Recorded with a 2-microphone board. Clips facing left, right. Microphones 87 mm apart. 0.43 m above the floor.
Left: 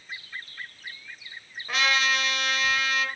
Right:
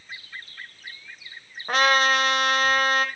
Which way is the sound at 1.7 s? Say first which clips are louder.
Right 6 dB; 45° right (ahead or behind).